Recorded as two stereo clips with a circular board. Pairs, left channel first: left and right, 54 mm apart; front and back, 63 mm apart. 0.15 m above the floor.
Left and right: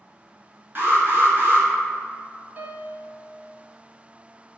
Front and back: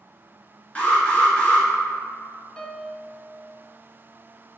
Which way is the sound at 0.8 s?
65° right.